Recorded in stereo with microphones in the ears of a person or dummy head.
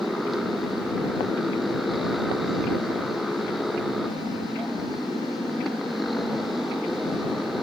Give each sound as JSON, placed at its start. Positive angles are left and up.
{"t": 0.0, "sound": "a motorcycle", "side_deg": 0}